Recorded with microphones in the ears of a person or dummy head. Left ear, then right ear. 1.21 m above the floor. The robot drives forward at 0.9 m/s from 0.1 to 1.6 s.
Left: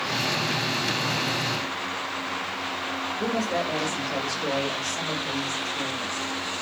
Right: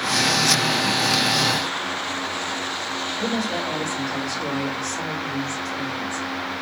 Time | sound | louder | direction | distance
3.2 | a woman speaking | left 1 dB | 15° left (ahead or behind) | 1.7 m